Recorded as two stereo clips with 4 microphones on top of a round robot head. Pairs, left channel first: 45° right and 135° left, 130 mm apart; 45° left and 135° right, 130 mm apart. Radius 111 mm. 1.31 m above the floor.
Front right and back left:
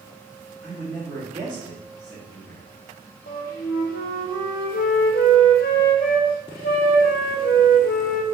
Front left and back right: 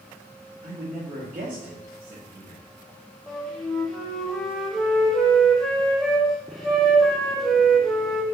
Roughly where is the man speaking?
Behind right.